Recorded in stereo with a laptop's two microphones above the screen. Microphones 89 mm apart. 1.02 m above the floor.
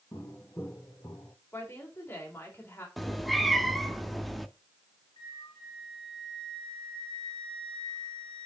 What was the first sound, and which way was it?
Footsteps, 30° left (ahead or behind).